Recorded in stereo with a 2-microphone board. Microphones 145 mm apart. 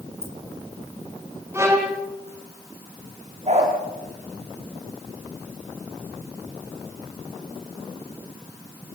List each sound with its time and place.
0.2 s keys jangling: 45° right (ahead or behind), 6 m
1.5 s a violin: 20° right (ahead or behind), 4 m
3.5 s a dog barking: 45° right (ahead or behind), 6.5 m